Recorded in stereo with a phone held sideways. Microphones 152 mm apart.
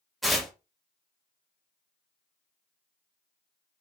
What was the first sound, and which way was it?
Tearing paper, centre (ahead or behind).